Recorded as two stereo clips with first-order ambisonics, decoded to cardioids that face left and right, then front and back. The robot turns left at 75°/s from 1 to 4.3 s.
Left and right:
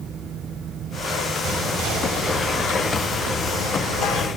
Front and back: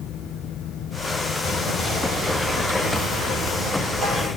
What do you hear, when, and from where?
1.4 s whispering: 45° right, 3.5 m; by 4.3 s 100° left, 3.5 m